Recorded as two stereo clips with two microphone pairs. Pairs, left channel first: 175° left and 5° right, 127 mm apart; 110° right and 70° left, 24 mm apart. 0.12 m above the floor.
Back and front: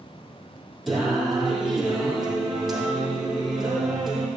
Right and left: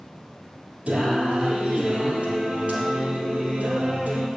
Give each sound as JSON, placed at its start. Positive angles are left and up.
{"t": 0.9, "sound": "singing", "azimuth_deg": 85, "distance_m": 4.5}